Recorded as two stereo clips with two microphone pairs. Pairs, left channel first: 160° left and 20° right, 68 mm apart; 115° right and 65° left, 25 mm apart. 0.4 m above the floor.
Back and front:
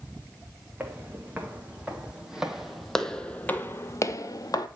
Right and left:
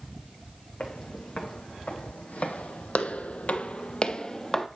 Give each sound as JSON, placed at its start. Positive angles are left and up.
{"t": 0.8, "sound": "footsteps", "azimuth_deg": -85, "distance_m": 1.8}